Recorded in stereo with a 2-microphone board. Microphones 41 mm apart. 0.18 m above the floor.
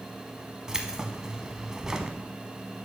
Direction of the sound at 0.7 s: 15° right (ahead or behind).